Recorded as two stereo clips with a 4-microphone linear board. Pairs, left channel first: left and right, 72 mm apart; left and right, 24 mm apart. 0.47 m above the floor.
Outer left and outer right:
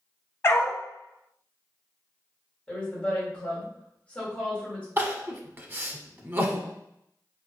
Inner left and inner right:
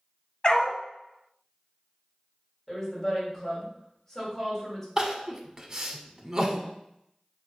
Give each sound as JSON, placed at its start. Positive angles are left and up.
{"t": 0.4, "sound": "a dog barking", "side_deg": 40, "distance_m": 0.7}
{"t": 2.7, "sound": "a woman speaking", "side_deg": 15, "distance_m": 1.9}
{"t": 5.0, "sound": "crying", "side_deg": -30, "distance_m": 0.5}